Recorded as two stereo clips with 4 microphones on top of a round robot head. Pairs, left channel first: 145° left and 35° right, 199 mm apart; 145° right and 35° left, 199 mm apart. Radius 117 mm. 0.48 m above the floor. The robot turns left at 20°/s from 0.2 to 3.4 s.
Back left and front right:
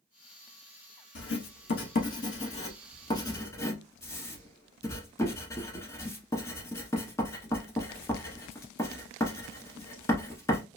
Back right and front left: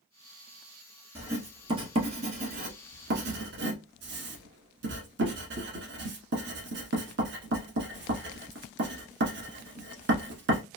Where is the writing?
115° left, 1.0 m; by 10.6 s 70° left, 1.0 m.